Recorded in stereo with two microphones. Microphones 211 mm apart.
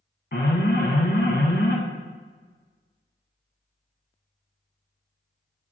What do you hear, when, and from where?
0.3 s an alarm: 50° left (ahead or behind), 1.1 m